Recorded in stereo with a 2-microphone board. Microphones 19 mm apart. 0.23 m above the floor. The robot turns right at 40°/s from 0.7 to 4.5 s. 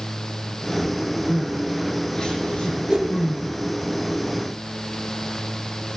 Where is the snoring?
No snoring in this recording.